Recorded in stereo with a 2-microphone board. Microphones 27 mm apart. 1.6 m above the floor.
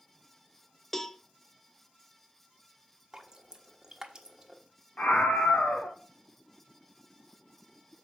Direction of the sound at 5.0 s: 75° left (ahead or behind).